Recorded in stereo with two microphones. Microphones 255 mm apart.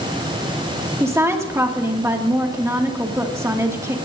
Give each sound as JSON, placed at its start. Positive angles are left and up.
{"t": 1.0, "sound": "a woman speaking", "side_deg": -10, "distance_m": 1.9}